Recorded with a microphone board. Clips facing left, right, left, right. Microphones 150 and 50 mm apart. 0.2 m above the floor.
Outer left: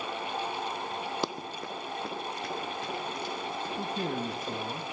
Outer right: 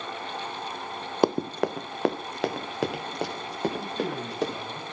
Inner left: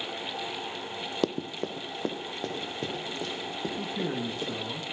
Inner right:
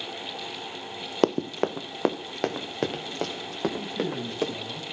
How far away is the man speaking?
About 1.8 m.